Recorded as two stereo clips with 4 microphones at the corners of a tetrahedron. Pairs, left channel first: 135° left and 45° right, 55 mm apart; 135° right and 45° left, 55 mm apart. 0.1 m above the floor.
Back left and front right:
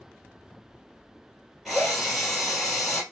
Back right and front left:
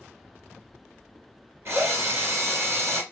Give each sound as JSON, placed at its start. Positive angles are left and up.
{"t": 1.6, "sound": "a drill", "azimuth_deg": 50, "distance_m": 2.5}